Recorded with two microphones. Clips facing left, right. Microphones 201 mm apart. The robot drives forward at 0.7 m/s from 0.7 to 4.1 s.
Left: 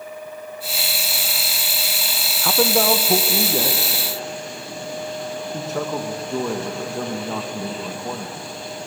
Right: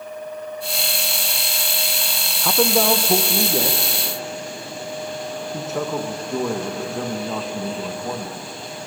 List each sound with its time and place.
2.4 s a man speaking: centre (ahead or behind), 0.6 m